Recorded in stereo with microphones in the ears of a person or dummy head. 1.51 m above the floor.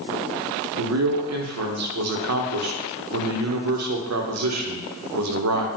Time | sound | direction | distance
0.8 | a man speaking | 80° right | 0.7 m